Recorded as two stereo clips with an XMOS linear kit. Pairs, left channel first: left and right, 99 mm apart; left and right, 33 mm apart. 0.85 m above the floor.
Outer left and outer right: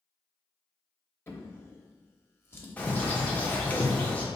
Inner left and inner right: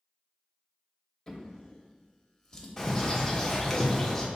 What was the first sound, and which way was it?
A drawer, 25° left (ahead or behind).